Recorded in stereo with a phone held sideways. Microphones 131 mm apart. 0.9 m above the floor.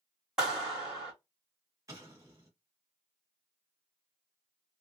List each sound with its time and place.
0.4 s a clap: 5° right (ahead or behind), 2 m
1.9 s an explosion: 25° right (ahead or behind), 1.4 m